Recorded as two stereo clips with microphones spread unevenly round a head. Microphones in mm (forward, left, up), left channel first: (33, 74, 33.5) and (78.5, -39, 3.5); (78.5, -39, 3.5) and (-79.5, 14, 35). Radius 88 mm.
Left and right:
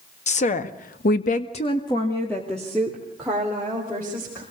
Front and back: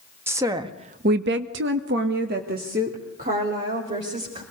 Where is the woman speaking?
80° left, 1.9 m; by 4.4 s 145° right, 5 m.